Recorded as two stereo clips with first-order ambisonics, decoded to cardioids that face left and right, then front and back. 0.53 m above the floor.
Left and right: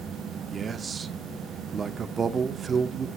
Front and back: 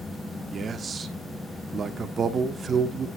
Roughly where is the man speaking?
Behind right.